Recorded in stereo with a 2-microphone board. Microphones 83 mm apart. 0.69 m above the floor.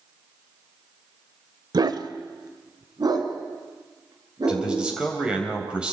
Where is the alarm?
I don't hear an alarm.